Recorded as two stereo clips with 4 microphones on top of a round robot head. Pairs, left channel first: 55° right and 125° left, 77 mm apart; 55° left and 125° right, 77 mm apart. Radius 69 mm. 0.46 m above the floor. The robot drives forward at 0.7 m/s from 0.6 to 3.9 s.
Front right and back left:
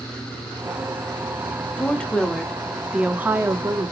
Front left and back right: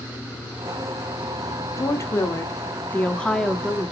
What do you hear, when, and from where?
1.8 s a woman speaking: 15° left, 1.3 m; by 3.9 s 150° left, 1.0 m